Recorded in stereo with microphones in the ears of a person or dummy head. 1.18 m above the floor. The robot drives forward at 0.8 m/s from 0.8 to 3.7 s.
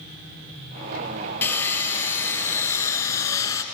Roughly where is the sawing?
Centre.